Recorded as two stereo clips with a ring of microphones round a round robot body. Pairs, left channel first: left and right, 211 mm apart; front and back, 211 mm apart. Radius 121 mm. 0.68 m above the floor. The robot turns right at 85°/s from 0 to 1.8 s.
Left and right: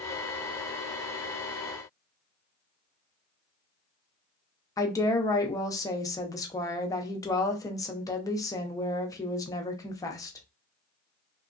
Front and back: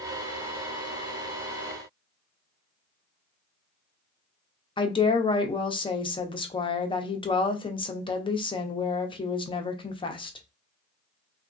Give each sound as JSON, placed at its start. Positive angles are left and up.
{"t": 4.8, "sound": "a woman speaking", "azimuth_deg": 35, "distance_m": 0.7}